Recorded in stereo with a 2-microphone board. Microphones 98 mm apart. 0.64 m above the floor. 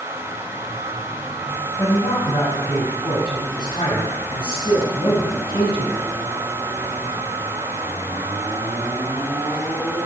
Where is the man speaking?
40° left (ahead or behind), 5 m; by 6.1 s 65° left (ahead or behind), 5.5 m.